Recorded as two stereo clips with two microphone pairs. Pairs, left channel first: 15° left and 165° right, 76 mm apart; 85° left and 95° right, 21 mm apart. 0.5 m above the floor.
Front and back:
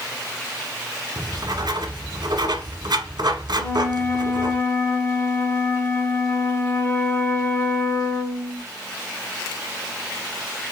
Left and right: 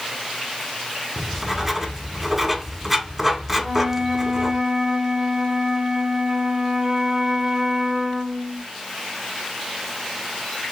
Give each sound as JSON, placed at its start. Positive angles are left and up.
{"t": 1.2, "sound": "writing", "azimuth_deg": -175, "distance_m": 0.8}
{"t": 3.6, "sound": "a flute", "azimuth_deg": -35, "distance_m": 0.7}